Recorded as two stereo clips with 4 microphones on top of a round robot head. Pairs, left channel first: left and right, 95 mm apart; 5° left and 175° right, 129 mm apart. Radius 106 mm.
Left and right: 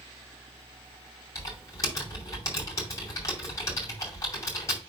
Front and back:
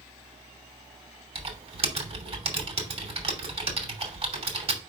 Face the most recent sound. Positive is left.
turn(degrees=145)